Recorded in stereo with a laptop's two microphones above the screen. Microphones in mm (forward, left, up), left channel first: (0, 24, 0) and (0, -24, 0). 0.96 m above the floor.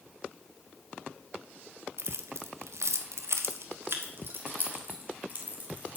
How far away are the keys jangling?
About 1.3 m.